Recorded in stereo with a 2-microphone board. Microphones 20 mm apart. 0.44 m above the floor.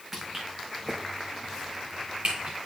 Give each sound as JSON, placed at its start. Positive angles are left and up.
{"t": 0.1, "sound": "footsteps", "side_deg": -20, "distance_m": 2.0}